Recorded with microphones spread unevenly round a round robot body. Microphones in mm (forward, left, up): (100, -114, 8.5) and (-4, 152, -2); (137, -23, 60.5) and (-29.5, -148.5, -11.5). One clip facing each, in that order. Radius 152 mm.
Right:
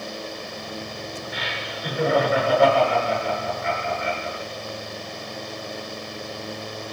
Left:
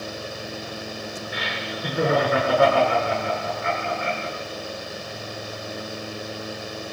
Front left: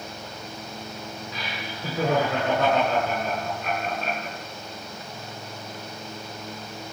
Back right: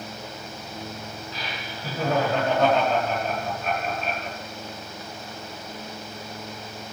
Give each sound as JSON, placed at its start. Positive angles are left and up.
{"t": 1.3, "sound": "laughter", "azimuth_deg": 80, "distance_m": 7.5}